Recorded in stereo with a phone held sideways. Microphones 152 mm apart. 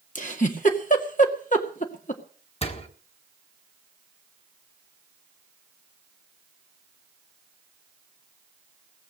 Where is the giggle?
60° left (ahead or behind), 2 m.